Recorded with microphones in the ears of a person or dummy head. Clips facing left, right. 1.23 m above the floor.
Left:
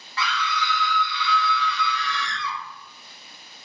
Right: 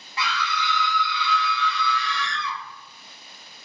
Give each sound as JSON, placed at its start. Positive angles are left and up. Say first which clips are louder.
{"t": 0.2, "sound": "a scream", "louder": "left 1 dB", "side_deg": -15, "distance_m": 0.5}